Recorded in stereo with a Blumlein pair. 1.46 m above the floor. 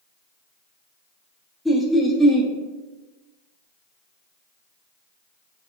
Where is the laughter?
Straight ahead, 0.5 m.